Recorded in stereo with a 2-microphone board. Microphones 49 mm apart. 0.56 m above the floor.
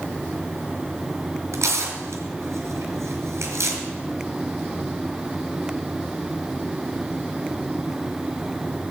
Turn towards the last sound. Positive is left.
turn(degrees=-80)